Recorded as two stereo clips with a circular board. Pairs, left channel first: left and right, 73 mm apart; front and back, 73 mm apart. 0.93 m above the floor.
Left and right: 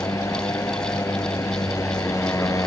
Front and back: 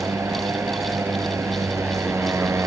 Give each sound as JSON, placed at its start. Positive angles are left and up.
{"t": 0.0, "sound": "a motorcycle", "azimuth_deg": 130}